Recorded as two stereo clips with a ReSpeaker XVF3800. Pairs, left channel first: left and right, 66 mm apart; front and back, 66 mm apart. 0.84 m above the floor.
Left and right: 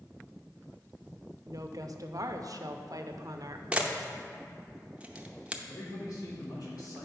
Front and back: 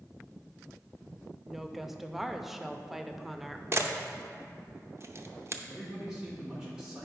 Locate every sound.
1.5 s a woman speaking: 95° right, 0.6 m
3.7 s a camera shutter: 155° right, 0.6 m
5.7 s a man speaking: 100° left, 2 m